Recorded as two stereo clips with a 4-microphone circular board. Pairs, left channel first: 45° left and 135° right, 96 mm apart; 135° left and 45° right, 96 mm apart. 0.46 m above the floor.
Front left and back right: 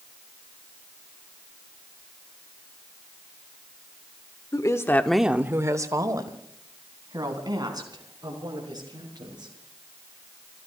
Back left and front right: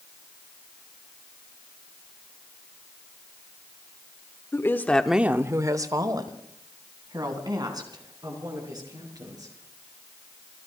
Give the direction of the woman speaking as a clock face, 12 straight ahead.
9 o'clock.